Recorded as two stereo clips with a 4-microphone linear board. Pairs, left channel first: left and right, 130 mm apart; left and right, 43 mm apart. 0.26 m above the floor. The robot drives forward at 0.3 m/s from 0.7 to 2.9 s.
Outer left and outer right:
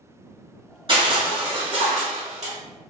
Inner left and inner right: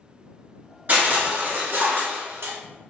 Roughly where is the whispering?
No whispering in this recording.